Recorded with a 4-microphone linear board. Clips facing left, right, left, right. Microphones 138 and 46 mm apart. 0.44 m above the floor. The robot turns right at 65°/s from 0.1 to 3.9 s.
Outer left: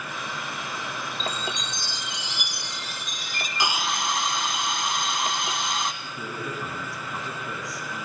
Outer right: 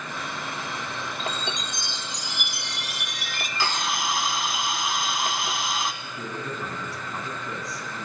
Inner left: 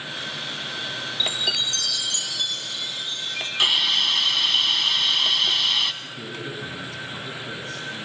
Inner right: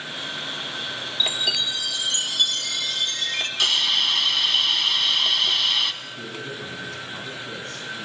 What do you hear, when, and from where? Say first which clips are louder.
1.2 s a chime: even, inner right 1 dB; 155° left, 2 m; by 3.5 s 55° right, 2 m
3.6 s a hiss: even, inner left 1 dB; 20° left (ahead or behind), 1.6 m; by 5.9 s centre (ahead or behind), 1.6 m
6.0 s a man speaking: even, even; centre (ahead or behind), 5 m